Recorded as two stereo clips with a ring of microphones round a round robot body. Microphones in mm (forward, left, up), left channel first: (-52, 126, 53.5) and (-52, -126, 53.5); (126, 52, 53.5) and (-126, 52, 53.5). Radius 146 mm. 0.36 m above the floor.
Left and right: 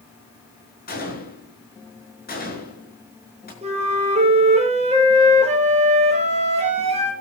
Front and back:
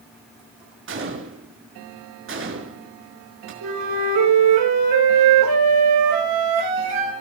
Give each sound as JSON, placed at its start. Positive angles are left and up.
{"t": 0.9, "sound": "a gunshot", "azimuth_deg": 145, "distance_m": 6.0}
{"t": 3.6, "sound": "a flute", "azimuth_deg": -155, "distance_m": 5.5}